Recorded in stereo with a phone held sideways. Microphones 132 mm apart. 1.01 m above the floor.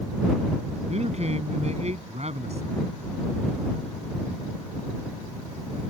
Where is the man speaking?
55° right (ahead or behind).